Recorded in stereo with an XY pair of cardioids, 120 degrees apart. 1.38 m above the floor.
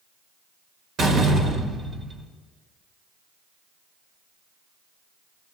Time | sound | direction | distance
1.0 | a door slam | 60° right | 1.6 m